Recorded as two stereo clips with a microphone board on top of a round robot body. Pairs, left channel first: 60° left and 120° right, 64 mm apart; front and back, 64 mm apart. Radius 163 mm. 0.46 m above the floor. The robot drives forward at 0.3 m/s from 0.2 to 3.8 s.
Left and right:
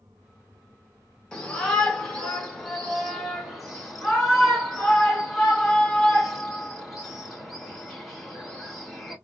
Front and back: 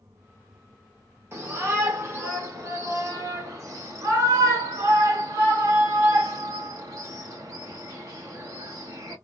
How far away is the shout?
About 1.9 m.